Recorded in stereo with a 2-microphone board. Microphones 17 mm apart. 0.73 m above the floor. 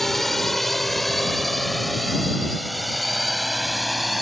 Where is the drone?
15° left (ahead or behind); by 4.2 s 5° right (ahead or behind).